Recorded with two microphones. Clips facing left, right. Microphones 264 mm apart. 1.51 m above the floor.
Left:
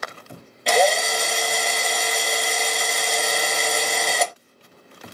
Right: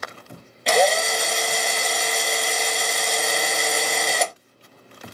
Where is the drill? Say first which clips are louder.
Even; centre (ahead or behind), 0.9 m.